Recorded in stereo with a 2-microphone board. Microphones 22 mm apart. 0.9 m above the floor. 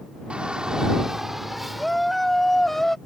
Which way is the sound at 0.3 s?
55° right (ahead or behind).